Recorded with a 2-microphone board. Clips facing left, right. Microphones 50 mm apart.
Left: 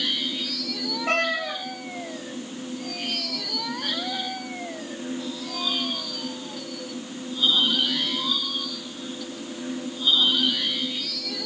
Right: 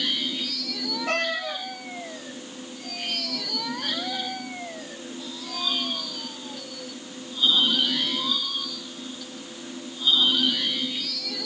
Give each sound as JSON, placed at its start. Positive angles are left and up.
{"t": 1.1, "sound": "a cat meowing", "side_deg": 30, "distance_m": 1.8}